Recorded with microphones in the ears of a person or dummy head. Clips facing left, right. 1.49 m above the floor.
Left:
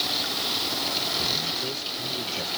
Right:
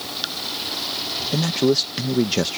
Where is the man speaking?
80° right.